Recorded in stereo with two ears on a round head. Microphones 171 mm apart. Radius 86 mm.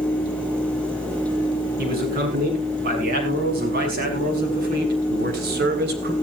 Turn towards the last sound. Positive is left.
turn(degrees=-60)  # may be behind; listen again after turning